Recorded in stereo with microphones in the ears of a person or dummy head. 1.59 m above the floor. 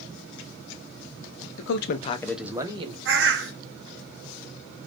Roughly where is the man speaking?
Left.